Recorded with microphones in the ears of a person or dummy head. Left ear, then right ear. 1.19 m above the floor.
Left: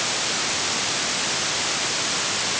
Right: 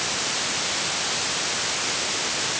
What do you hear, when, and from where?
Only background noise.